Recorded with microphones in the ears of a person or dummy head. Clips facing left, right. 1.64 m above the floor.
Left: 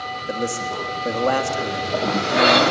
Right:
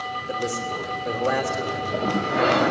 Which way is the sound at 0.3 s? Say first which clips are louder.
Left 3 dB; 55° left (ahead or behind).